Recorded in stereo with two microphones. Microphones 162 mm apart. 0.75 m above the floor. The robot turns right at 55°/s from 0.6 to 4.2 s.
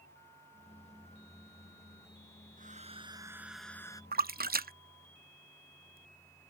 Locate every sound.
2.6 s a hair dryer: 55° right; by 4.0 s 25° left
4.1 s a splash: 70° right (ahead or behind)